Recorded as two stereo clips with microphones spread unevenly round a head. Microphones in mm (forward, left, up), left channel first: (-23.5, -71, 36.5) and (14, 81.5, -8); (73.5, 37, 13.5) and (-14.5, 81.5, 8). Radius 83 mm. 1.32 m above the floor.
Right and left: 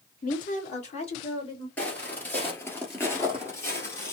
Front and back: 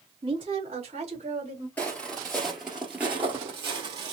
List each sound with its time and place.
0.2 s a woman speaking: 145° right, 1.4 m; by 1.7 s 165° right, 2.5 m
1.8 s footsteps: 80° right, 1.4 m; by 4.1 s 150° right, 1.8 m